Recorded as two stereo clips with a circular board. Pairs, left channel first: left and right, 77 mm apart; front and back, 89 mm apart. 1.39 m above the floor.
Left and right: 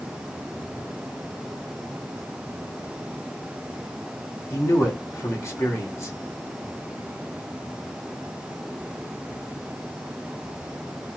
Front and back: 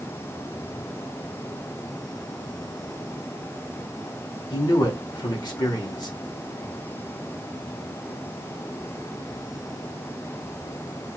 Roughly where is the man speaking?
Ahead left.